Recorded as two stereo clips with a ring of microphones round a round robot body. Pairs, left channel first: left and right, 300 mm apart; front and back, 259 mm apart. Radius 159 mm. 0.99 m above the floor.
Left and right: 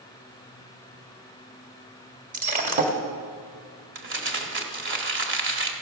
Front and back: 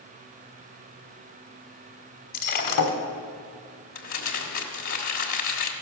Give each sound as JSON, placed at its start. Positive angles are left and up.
{"t": 2.3, "sound": "breaking glass", "azimuth_deg": -30, "distance_m": 1.3}
{"t": 4.0, "sound": "crumpling", "azimuth_deg": -40, "distance_m": 1.5}